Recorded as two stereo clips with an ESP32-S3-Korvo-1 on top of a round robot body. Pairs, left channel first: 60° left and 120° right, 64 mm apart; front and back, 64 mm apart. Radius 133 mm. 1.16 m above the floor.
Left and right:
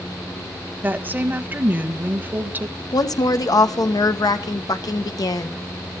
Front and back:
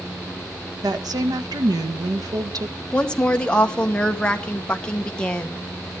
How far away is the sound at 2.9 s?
About 1.3 m.